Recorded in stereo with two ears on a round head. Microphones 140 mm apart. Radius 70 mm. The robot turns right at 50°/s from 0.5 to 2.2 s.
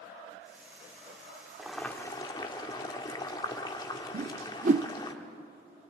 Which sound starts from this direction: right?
A whoosh, at 4.1 s.